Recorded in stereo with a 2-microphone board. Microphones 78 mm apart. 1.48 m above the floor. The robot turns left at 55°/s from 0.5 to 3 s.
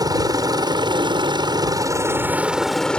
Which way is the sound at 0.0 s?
55° right.